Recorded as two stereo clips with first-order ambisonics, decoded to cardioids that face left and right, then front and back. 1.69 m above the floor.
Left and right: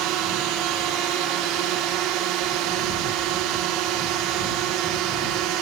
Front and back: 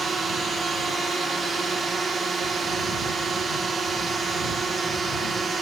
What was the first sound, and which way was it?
A drone, 110° right.